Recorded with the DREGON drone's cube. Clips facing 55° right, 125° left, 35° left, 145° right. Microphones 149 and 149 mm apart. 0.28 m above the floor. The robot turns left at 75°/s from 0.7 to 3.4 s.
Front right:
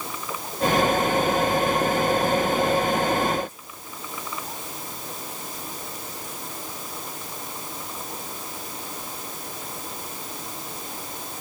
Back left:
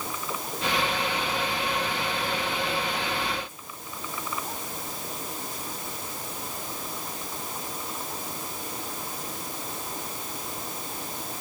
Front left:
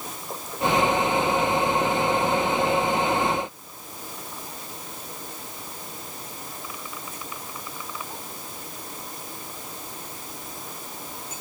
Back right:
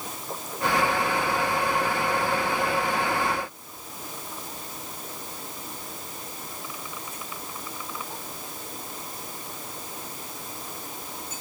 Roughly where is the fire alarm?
No fire alarm in this recording.